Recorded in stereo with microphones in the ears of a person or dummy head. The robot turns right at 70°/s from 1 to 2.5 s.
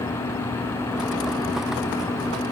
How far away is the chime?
I don't hear a chime.